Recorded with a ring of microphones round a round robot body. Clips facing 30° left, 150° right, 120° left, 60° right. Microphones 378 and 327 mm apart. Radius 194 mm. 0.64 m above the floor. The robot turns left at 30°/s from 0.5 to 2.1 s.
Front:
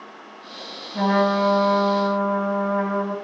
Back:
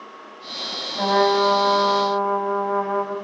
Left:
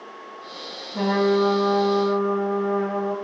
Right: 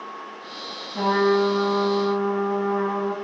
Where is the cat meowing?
I don't hear a cat meowing.